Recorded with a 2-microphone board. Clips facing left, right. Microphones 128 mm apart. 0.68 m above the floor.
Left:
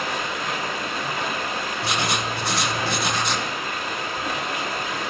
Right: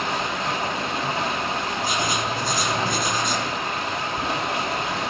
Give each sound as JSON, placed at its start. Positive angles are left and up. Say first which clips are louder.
{"t": 0.0, "sound": "running water", "louder": "right 2 dB", "side_deg": -25, "distance_m": 5.0}
{"t": 1.8, "sound": "writing", "louder": "left 1 dB", "side_deg": 75, "distance_m": 1.5}